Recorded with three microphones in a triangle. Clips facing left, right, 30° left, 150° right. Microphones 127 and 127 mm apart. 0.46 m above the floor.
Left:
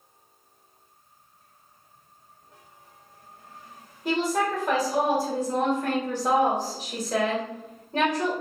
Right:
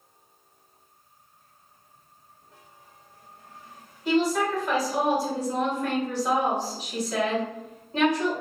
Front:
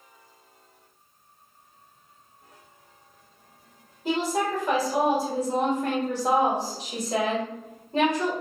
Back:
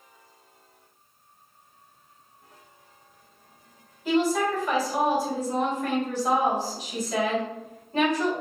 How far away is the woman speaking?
About 1.7 m.